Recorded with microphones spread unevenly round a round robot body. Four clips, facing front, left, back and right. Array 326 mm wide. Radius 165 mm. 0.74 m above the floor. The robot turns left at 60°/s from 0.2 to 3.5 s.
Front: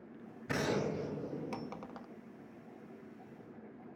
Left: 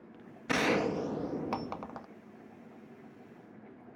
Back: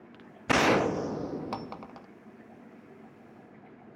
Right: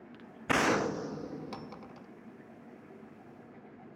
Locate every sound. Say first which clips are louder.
0.5 s a gunshot: right 1 dB, back 10 dB; 165° right, 0.5 m; by 2.1 s 100° left, 0.5 m